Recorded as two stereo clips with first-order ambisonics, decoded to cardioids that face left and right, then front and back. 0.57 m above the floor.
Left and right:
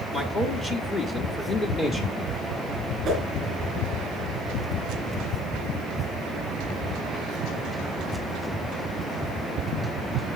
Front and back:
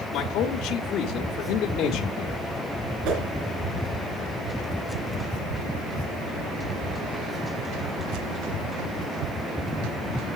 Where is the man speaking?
20° left, 1.2 m.